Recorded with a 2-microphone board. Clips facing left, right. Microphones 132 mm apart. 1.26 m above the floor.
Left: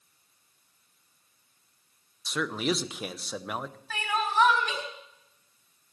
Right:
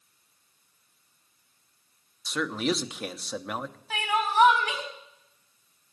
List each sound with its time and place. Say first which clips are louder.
2.2 s a man speaking: right 1 dB; centre (ahead or behind), 0.8 m
3.9 s crying: right 2 dB; 15° right (ahead or behind), 5.5 m